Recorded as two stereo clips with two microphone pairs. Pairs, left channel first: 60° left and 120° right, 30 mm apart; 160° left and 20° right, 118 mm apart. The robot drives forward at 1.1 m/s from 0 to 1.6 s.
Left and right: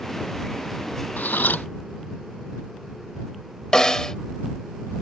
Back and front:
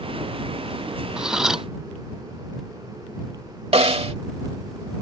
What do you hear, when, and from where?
1.2 s cutlery clinking: 65° left
3.7 s a snare drum: 5° right